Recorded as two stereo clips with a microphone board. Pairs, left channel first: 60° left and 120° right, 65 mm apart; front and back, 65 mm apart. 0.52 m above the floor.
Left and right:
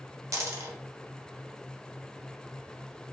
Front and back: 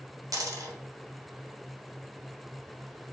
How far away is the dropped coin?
About 0.9 m.